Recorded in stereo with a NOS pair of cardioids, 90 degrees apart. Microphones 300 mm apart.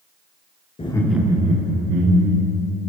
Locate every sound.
0.8 s laughter: 20° left, 0.5 m; by 2.6 s 60° right, 1.0 m